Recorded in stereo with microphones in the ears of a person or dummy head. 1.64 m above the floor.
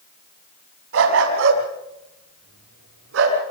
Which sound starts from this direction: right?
A dog barking, at 0.9 s.